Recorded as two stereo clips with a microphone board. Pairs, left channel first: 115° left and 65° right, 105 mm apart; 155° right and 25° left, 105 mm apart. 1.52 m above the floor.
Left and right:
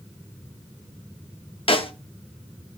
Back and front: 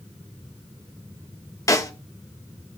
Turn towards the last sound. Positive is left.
turn(degrees=145)